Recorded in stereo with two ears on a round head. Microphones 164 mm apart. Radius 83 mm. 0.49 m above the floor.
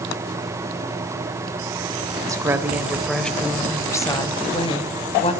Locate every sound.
2.3 s a woman speaking: 20° right (ahead or behind), 2.5 m; by 5.3 s 35° left (ahead or behind), 4 m